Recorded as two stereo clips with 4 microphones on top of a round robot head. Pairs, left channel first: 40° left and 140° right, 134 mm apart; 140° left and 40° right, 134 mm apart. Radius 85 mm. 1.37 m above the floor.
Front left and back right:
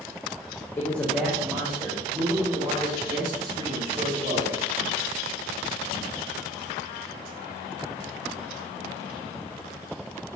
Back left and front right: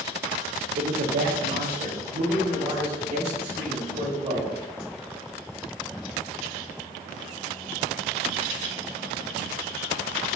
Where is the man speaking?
25° right, 0.9 m; by 4.5 s 85° right, 4 m.